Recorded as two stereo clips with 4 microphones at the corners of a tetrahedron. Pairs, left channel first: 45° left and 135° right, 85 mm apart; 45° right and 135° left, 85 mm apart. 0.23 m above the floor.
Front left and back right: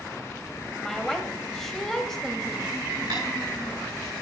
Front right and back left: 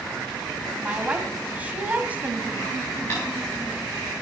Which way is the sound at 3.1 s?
110° right.